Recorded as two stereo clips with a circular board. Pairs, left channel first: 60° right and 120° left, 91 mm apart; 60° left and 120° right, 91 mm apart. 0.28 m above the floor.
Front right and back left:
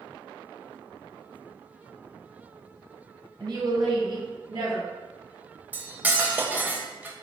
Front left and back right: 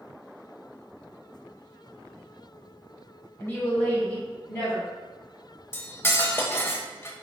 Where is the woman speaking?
110° left, 1.3 m; by 4.9 s 140° left, 2.5 m.